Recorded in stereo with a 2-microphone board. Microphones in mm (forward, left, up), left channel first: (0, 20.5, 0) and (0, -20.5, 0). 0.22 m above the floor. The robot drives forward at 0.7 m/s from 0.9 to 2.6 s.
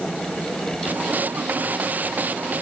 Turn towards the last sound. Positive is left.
No sound to turn to.